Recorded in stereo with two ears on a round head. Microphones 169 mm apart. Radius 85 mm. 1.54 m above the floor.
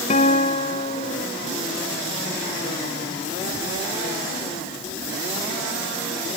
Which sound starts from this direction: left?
A guitar, at 0.1 s.